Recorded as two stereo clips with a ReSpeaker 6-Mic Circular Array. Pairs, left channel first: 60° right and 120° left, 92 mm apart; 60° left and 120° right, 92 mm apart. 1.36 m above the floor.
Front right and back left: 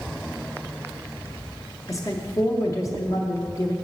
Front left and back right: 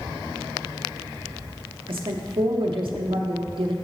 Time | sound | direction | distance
1.9 | a woman speaking | 110° right | 0.6 m